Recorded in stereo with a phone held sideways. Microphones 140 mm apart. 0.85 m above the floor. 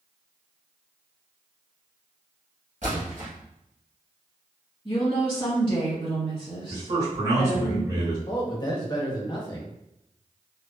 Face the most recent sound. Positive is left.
turn(degrees=30)  # may be behind; listen again after turning